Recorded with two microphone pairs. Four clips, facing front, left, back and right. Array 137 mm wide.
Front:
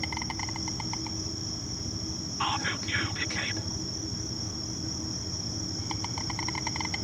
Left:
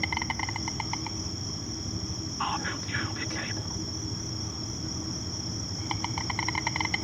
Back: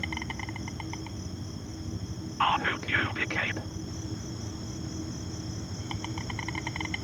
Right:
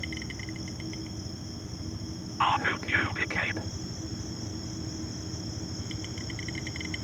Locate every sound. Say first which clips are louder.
0.0 s an insect: left 6 dB, front 1 dB; 70° left
2.4 s whispering: right 6 dB, back 5 dB; 135° right